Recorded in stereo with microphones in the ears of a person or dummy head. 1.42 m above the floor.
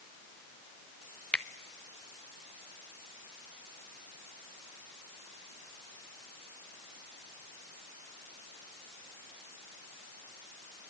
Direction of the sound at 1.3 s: 10° left (ahead or behind).